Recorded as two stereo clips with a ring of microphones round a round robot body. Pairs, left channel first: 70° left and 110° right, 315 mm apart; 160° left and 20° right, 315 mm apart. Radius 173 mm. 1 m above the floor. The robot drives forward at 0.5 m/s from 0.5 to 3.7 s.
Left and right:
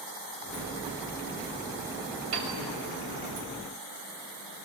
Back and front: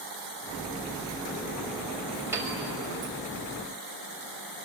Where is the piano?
105° right, 6.5 m.